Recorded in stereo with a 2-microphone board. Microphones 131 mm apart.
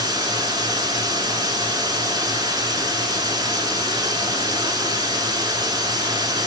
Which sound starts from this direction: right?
Running water, at 0.0 s.